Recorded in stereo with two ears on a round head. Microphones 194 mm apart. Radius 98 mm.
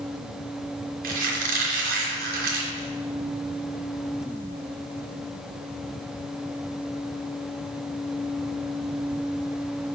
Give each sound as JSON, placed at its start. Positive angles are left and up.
{"t": 1.0, "sound": "a squeak", "side_deg": -45, "distance_m": 3.0}